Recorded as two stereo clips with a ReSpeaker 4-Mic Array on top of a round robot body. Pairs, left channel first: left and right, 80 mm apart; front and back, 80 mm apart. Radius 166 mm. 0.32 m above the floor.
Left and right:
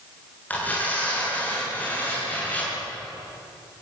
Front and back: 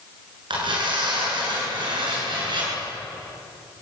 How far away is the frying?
I don't hear frying.